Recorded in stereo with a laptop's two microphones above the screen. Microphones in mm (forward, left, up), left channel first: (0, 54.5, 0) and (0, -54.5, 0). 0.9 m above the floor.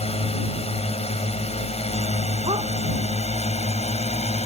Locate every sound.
0.0 s a drone: 65° left (ahead or behind); by 4.5 s 75° left (ahead or behind)
2.5 s a dog barking: 60° right (ahead or behind)